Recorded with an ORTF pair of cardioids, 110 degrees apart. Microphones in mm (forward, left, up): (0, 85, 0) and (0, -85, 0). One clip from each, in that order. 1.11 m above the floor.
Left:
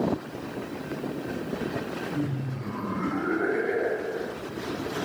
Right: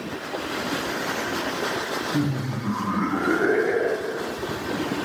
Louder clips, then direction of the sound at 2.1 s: Right 6 dB; 50° right.